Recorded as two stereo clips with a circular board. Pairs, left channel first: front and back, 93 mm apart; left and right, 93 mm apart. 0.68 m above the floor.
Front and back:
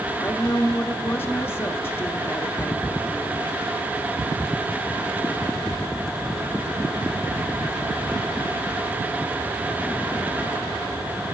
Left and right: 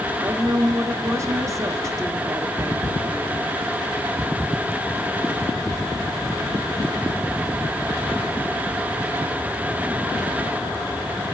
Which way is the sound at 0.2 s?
55° right.